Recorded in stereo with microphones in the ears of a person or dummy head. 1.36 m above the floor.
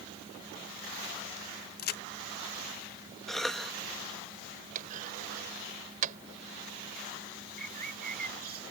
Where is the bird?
45° right (ahead or behind).